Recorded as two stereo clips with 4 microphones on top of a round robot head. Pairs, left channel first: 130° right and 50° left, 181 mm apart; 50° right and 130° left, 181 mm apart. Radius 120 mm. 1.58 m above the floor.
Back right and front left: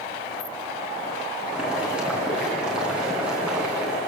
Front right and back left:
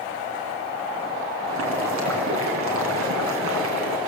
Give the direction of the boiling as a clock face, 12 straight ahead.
7 o'clock.